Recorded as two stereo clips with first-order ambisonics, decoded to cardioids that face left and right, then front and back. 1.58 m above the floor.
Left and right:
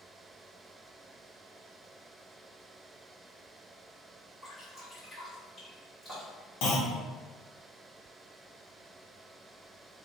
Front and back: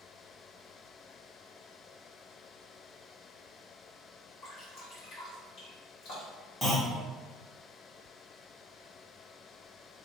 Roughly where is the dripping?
Ahead.